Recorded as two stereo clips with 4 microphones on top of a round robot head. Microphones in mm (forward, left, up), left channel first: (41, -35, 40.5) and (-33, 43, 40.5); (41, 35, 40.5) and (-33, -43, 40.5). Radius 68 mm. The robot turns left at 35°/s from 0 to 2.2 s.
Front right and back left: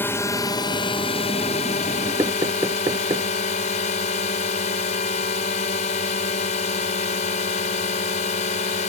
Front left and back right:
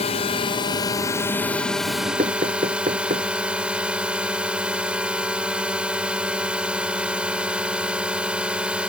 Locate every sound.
0.0 s a drone: 25° left; by 8.9 s 55° right
2.2 s knocking: 165° right